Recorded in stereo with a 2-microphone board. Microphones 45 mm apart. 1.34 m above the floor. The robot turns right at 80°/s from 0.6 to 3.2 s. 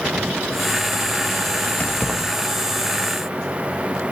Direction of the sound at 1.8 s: 35° left (ahead or behind).